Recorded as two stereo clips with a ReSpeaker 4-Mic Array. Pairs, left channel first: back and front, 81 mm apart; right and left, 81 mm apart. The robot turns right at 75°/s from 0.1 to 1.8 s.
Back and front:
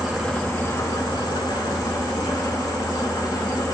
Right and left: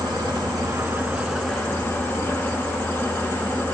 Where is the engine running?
85° left, 1.2 m; by 3.8 s 150° right, 1.2 m.